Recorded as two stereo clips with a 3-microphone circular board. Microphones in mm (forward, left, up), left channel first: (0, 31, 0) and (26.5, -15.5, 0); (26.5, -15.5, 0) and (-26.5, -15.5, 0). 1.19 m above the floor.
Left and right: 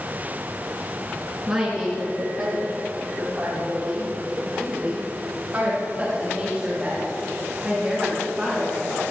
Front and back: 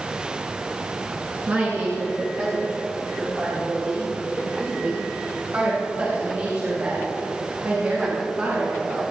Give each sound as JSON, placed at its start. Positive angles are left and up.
{"t": 1.5, "sound": "a woman speaking", "azimuth_deg": -135, "distance_m": 2.0}